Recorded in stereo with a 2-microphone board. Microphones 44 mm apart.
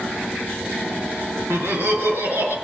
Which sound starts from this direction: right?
Laughter, at 1.5 s.